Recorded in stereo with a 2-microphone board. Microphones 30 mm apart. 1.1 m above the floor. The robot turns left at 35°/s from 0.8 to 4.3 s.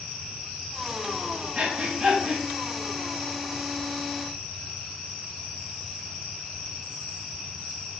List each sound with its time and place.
1.6 s breathing: 50° right (ahead or behind), 7.5 m; by 2.4 s 20° right (ahead or behind), 7.5 m